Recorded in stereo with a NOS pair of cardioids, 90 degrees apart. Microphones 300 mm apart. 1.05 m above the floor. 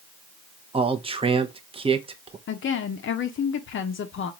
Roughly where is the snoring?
No snoring in this recording.